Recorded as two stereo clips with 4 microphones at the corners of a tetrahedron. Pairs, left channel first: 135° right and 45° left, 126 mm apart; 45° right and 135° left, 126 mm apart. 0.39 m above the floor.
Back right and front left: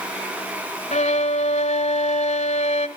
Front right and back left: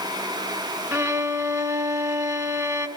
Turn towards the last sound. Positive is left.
turn(degrees=-160)